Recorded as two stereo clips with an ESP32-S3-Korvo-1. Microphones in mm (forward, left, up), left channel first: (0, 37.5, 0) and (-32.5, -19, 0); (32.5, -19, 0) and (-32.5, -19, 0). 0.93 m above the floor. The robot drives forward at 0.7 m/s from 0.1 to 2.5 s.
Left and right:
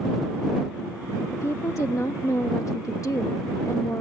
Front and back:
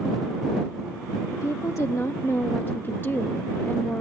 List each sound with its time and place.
1.3 s a woman speaking: 25° left; by 4.0 s 50° left